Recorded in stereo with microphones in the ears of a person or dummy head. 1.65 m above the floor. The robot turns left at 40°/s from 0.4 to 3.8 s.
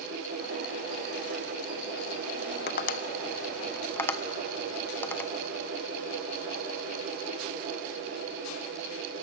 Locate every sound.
2.7 s tapping: 60° left (ahead or behind), 1.0 m; by 5.3 s 15° left (ahead or behind), 1.0 m